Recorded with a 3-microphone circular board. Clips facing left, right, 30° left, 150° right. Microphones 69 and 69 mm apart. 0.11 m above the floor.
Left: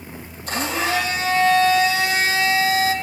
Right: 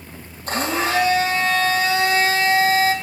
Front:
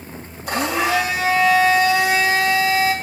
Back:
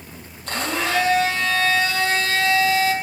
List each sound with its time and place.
0.5 s a blender: 45° right, 4 m